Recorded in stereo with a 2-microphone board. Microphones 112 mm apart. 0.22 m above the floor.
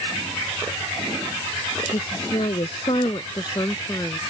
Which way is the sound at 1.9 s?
65° left (ahead or behind).